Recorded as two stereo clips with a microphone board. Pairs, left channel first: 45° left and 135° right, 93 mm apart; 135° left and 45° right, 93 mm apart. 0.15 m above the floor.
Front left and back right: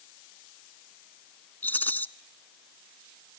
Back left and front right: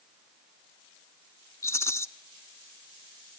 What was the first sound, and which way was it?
A rattle, 100° left.